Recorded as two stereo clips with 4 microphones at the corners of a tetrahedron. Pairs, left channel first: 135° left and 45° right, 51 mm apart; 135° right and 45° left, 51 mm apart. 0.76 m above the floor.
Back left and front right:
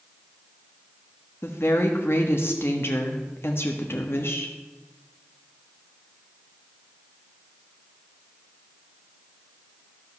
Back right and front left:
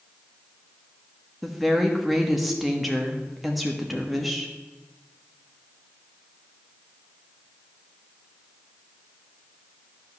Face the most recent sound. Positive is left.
turn(degrees=135)